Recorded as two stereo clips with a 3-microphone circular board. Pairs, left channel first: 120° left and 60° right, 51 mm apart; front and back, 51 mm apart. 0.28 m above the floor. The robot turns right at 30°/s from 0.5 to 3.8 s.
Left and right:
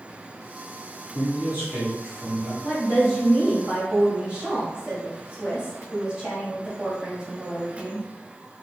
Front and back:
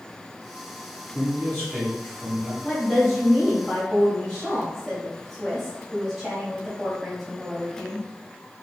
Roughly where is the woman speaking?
Behind right.